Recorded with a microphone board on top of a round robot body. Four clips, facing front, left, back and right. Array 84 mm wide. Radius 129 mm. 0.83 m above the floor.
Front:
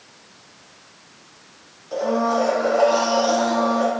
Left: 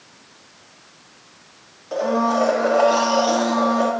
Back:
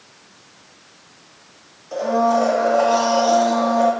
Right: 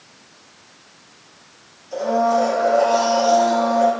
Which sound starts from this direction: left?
A blender, at 1.9 s.